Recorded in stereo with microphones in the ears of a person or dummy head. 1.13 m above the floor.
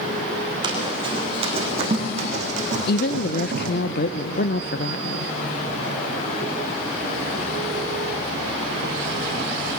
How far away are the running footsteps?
About 4.5 m.